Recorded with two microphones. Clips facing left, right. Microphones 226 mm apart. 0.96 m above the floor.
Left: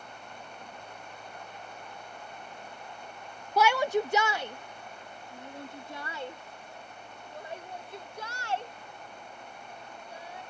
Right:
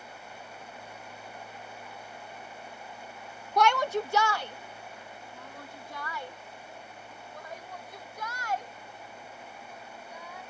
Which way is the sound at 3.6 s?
5° left (ahead or behind).